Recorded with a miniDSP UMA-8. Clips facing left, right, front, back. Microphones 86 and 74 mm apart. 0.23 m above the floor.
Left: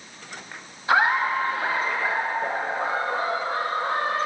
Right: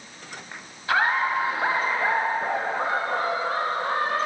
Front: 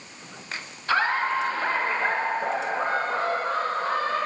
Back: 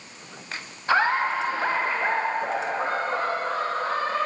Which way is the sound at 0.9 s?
140° left.